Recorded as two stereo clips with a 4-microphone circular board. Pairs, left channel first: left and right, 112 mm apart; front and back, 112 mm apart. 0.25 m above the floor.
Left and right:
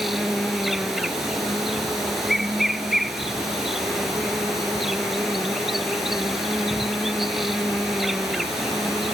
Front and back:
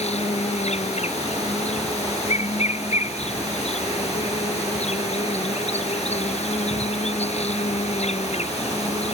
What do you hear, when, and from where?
0.0 s an insect: straight ahead